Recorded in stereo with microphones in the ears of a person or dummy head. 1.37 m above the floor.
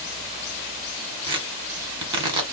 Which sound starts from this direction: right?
Tearing paper, at 1.2 s.